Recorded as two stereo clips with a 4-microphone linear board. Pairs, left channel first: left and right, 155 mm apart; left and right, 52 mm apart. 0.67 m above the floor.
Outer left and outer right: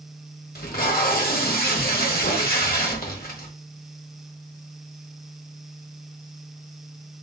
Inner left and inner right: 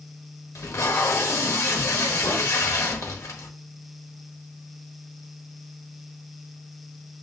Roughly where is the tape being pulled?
Left.